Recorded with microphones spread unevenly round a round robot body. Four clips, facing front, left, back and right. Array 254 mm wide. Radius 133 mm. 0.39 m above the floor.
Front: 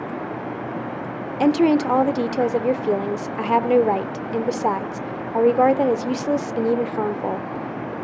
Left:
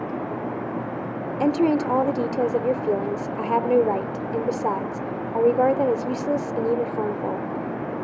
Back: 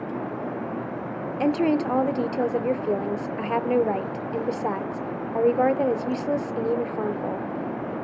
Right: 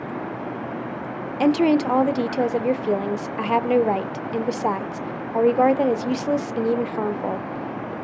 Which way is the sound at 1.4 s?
10° left.